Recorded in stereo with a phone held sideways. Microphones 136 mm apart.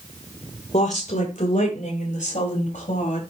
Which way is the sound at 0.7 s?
65° left (ahead or behind).